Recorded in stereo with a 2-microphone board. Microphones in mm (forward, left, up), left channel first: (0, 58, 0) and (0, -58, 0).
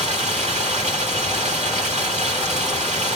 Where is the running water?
85° right, 2 m.